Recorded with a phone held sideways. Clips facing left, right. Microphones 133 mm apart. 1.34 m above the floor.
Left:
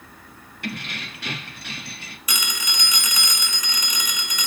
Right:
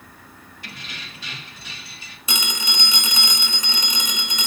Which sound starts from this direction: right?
A phone ringing, at 2.3 s.